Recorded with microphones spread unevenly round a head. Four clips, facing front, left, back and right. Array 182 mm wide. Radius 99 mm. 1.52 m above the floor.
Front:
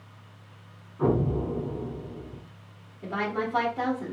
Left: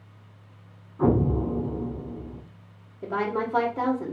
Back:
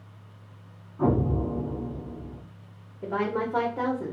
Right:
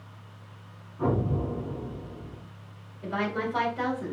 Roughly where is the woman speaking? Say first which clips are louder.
Left 3 dB, back 2 dB; behind left.